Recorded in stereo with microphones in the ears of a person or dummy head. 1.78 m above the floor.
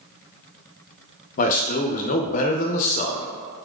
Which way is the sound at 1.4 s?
45° left (ahead or behind).